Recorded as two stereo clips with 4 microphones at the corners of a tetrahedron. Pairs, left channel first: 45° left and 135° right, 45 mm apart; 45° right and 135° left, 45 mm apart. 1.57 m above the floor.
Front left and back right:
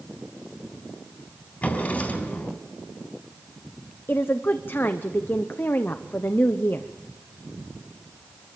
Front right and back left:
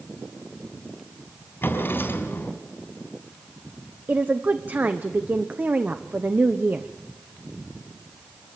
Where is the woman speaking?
85° left, 0.8 m.